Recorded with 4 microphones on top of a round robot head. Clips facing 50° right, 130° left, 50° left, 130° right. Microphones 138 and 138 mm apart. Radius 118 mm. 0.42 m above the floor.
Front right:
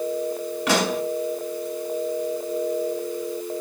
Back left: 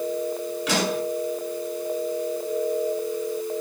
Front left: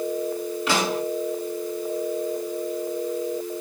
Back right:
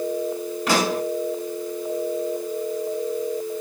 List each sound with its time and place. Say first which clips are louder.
0.7 s a pop: front right 3 dB, back right 3 dB; 80° right, 6.5 m